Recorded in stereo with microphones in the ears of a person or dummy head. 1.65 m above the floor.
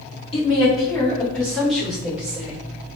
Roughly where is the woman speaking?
Left.